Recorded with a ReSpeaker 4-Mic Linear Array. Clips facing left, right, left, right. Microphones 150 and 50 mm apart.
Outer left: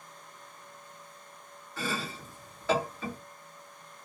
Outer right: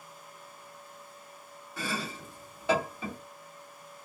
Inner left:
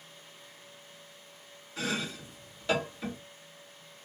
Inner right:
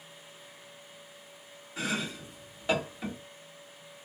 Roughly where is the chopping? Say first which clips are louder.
Outer left 1 dB, inner right 1 dB; centre.